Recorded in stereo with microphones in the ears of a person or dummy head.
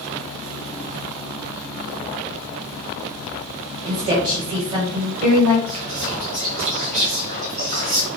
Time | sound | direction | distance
3.9 | a woman speaking | 25° right (ahead or behind) | 1.2 m
5.7 | whispering | 40° right (ahead or behind) | 1.2 m